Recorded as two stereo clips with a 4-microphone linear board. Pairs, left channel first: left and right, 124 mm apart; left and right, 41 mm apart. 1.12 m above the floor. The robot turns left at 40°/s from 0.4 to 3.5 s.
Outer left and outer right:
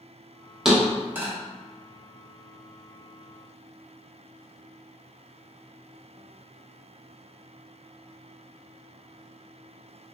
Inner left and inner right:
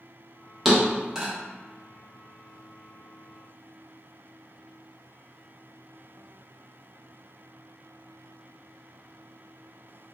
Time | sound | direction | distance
0.7 | a thud | 5° right (ahead or behind) | 0.7 m